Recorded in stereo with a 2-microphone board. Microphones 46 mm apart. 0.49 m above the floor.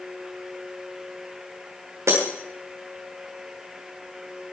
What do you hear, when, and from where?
2.1 s breaking glass: 75° right (ahead or behind), 4 m